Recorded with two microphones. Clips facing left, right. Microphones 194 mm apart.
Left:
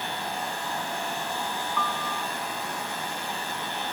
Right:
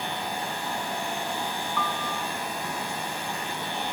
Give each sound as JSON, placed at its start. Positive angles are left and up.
{"t": 1.8, "sound": "a piano", "side_deg": 0}